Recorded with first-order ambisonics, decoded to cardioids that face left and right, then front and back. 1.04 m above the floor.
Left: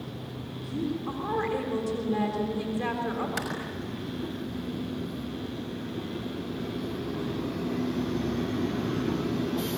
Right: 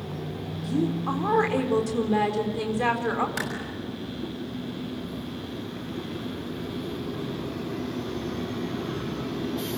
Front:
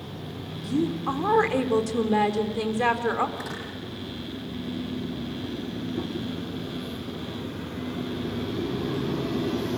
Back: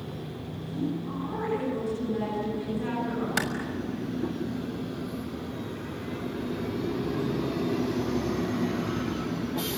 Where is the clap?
Straight behind, 6 m.